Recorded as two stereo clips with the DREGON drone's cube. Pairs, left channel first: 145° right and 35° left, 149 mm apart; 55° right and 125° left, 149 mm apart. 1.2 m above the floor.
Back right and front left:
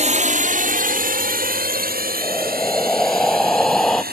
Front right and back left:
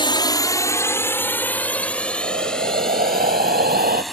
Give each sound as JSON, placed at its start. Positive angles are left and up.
{"t": 0.0, "sound": "a drone", "azimuth_deg": 0}
{"t": 2.2, "sound": "breathing", "azimuth_deg": 125}